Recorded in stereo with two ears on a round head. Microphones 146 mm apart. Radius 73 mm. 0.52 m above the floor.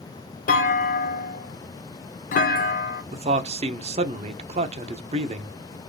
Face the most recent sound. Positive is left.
turn(degrees=-40)  # may be behind; listen again after turning